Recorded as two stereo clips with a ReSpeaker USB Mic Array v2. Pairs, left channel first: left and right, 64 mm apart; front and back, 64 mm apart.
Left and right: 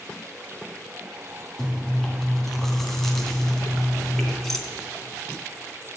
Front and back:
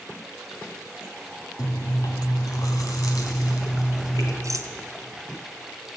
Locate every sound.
1.6 s chewing: 10° left, 2.5 m
4.4 s a rattle: 175° left, 1.3 m